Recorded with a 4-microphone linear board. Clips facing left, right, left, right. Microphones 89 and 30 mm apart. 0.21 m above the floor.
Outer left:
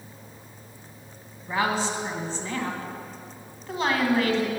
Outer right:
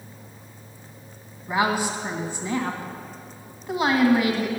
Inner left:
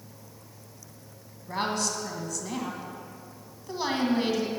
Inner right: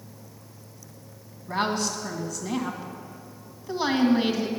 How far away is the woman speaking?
About 1.8 m.